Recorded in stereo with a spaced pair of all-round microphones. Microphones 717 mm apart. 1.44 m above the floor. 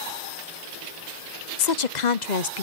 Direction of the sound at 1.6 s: 80° left.